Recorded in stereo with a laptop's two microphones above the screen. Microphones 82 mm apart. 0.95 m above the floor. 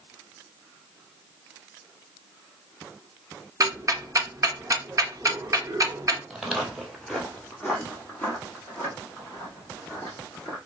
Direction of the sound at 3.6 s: 40° right (ahead or behind).